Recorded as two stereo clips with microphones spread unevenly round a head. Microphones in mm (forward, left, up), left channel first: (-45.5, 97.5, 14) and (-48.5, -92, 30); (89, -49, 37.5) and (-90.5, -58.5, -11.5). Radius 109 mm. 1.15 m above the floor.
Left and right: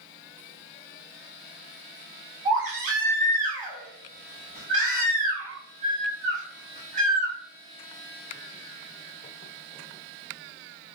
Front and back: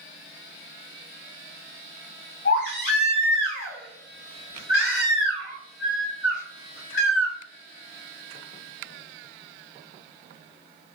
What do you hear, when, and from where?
2.5 s a baby crying: 30° right, 1.3 m